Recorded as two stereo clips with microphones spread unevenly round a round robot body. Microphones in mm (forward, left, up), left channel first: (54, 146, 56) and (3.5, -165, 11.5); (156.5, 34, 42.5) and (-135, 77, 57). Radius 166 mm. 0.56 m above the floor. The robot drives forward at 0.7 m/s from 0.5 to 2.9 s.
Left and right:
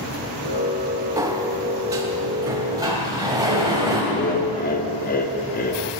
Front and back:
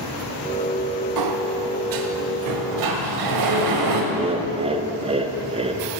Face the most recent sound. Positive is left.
turn(degrees=120)